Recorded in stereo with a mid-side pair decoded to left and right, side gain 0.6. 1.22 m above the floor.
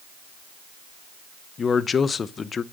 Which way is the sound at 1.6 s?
30° left.